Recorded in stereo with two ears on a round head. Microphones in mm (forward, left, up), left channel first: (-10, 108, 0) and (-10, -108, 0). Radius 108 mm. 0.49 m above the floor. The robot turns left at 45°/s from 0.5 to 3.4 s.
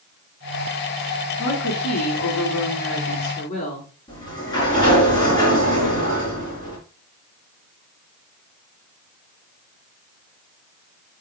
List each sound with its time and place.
1.4 s a woman speaking: 120° left, 4.5 m; by 3.9 s 30° left, 4.5 m
4.1 s a sliding door: 20° left (ahead or behind), 3.5 m